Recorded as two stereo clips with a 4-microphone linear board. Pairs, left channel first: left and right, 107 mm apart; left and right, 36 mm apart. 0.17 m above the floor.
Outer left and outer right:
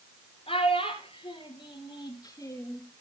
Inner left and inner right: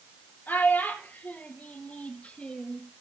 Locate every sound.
0.5 s a child speaking: 70° left (ahead or behind), 3 m; by 2.8 s 25° left (ahead or behind), 1.9 m